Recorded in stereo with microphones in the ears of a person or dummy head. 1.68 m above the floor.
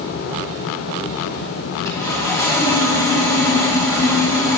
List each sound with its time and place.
1.9 s sawing: 20° left (ahead or behind), 4 m